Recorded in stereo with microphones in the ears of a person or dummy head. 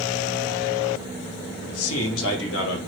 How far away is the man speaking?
About 0.6 m.